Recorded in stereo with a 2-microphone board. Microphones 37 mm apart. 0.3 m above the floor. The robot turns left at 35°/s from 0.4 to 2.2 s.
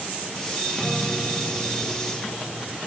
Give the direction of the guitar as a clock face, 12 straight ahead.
7 o'clock.